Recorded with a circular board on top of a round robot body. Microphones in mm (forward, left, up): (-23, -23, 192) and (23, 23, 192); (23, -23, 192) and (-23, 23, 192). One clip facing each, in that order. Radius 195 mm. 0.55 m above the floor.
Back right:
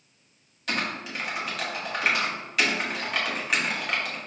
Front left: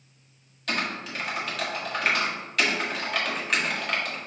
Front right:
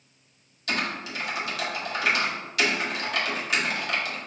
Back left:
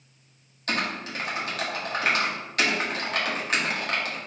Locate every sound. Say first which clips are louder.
0.7 s typing on a keyboard: even, back left 1 dB; 140° left, 1.5 m